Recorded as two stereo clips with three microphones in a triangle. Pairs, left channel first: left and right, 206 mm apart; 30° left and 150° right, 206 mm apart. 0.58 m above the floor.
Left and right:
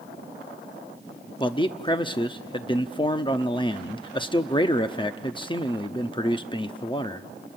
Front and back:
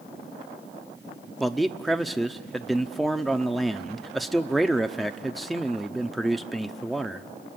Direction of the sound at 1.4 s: 120° left.